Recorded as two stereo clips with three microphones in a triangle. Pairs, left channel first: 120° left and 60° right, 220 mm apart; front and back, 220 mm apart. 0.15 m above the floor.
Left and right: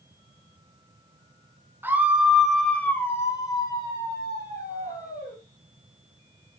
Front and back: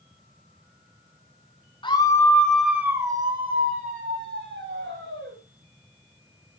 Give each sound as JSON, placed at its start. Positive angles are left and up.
{"t": 1.8, "sound": "a scream", "azimuth_deg": 5, "distance_m": 1.8}